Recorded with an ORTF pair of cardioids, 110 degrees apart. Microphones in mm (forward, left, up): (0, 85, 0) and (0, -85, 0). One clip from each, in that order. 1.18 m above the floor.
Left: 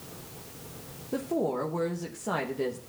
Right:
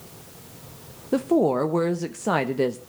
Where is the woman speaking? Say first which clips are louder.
Right 9 dB; 40° right, 0.7 m.